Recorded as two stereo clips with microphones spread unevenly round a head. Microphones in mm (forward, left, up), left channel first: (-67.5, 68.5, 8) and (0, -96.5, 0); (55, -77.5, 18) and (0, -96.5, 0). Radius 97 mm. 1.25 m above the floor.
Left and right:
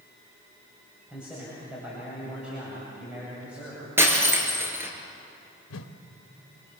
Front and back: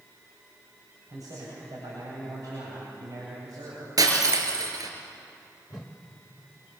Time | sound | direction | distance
1.1 | a man speaking | 150° right | 8.5 m
4.0 | breaking glass | 145° right | 5 m
5.7 | a whoosh | 100° left | 1.2 m